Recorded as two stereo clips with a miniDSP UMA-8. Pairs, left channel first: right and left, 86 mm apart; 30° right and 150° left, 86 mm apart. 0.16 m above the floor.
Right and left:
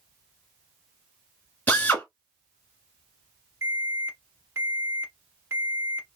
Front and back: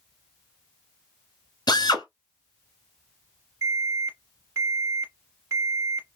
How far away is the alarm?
About 1.3 m.